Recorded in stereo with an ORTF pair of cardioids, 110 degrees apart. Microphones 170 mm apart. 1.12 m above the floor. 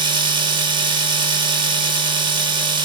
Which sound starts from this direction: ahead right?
A machine running, at 0.0 s.